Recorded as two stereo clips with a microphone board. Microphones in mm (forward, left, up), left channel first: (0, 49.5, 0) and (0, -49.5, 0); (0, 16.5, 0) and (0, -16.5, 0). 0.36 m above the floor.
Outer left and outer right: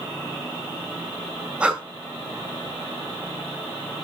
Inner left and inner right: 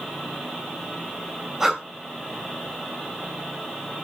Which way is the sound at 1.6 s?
10° right (ahead or behind).